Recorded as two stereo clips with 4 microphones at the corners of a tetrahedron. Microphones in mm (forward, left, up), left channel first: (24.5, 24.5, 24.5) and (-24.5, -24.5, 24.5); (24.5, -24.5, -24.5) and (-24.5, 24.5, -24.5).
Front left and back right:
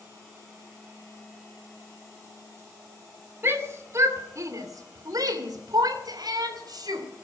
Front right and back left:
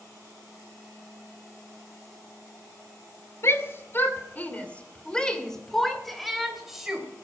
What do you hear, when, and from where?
3.4 s a shout: 85° right, 2.5 m; by 7.0 s 140° right, 3.5 m